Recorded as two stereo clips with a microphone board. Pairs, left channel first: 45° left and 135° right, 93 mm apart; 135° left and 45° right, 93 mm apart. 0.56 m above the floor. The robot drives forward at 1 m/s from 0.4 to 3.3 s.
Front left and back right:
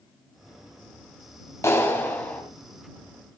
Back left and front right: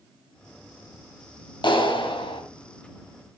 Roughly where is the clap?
Left.